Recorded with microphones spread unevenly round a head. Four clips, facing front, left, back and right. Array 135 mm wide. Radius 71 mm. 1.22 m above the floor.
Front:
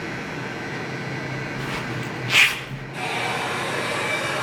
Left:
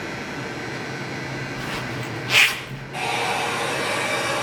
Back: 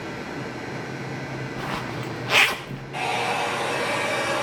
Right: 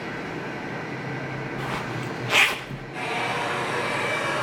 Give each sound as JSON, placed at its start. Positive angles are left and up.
{"t": 1.6, "sound": "a zipper", "azimuth_deg": -155, "distance_m": 1.3}
{"t": 2.9, "sound": "a hair dryer", "azimuth_deg": 155, "distance_m": 8.0}